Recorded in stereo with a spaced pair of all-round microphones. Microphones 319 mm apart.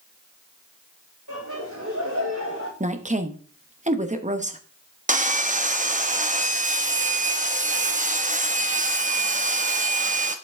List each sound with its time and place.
1.3 s laughter: 60° right (ahead or behind), 5 m
2.8 s a woman speaking: 20° right (ahead or behind), 1.0 m
5.1 s sawing: 25° right (ahead or behind), 0.7 m